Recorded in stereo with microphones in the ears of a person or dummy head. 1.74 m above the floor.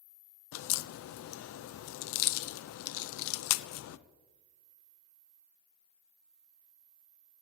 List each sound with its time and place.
0.5 s a crack: 85° left, 0.6 m